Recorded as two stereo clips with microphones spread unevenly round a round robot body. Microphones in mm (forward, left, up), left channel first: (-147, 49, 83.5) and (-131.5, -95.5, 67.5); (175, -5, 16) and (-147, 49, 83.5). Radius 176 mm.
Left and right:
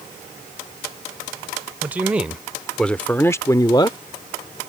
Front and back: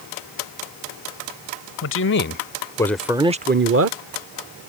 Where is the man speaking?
15° right; by 4.0 s 150° left.